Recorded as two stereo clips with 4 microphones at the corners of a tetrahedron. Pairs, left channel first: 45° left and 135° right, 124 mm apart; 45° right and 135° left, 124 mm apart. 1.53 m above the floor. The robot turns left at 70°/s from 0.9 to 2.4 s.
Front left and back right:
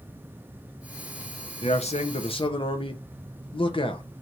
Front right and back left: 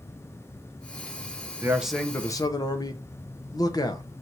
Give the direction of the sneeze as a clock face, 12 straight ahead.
I don't hear a sneeze.